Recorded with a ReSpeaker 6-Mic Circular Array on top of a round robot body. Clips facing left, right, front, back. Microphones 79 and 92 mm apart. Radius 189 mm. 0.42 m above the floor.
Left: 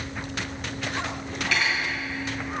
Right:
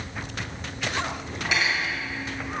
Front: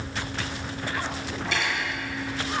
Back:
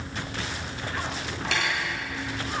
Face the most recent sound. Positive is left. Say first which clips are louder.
# right 1 dB, even
turn(degrees=-165)